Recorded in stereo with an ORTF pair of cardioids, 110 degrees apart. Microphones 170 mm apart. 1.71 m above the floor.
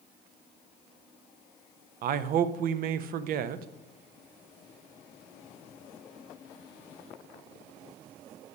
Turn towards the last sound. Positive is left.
turn(degrees=-60)